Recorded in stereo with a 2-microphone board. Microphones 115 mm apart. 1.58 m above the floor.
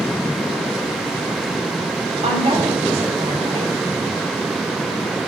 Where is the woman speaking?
70° right (ahead or behind), 7.5 m.